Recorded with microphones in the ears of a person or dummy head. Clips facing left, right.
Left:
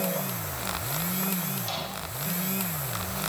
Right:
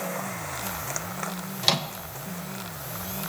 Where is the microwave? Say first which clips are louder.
Right 5 dB; 75° right (ahead or behind), 0.6 m.